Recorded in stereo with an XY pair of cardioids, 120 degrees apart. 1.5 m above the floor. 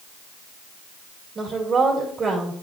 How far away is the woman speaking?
About 2.5 m.